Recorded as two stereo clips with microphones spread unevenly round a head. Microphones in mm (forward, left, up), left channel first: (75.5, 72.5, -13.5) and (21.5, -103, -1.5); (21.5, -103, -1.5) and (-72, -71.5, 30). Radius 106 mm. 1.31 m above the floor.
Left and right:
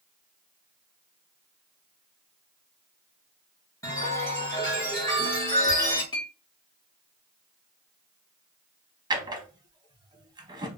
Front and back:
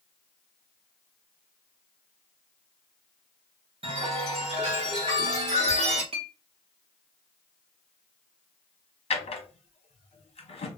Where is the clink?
145° left, 0.7 m.